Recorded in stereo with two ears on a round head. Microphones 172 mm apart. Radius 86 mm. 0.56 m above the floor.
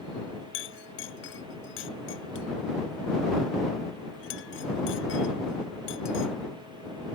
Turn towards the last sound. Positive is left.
turn(degrees=75)  # may be behind; listen again after turning